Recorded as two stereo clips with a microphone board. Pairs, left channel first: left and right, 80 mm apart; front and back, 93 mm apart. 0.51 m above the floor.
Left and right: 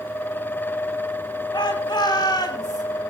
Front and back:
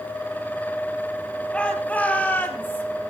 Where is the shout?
75° left, 4.5 m; by 2.8 s 65° left, 3.5 m.